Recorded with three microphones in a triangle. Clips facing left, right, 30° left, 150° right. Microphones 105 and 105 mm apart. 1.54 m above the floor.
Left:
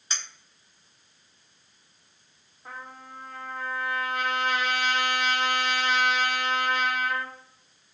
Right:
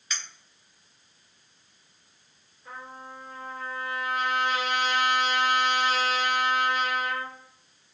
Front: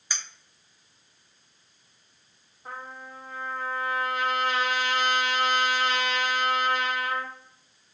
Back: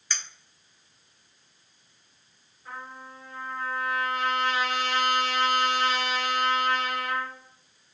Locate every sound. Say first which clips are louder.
0.1 s a clink: even, even; 95° left, 0.7 m
2.6 s a trumpet: even, front 1 dB; 60° left, 1.6 m